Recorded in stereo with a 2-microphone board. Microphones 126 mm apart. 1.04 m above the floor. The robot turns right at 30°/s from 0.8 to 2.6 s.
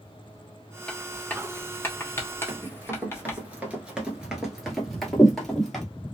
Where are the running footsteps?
15° right (ahead or behind), 1.1 m; by 5.8 s 5° left (ahead or behind), 1.5 m.